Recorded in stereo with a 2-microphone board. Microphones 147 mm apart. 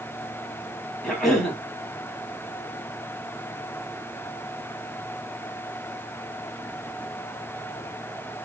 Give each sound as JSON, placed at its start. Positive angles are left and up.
{"t": 1.0, "sound": "a cough", "side_deg": 5, "distance_m": 1.4}